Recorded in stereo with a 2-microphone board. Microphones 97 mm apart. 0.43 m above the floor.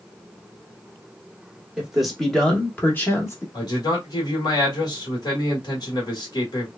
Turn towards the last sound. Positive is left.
turn(degrees=45)  # may be behind; listen again after turning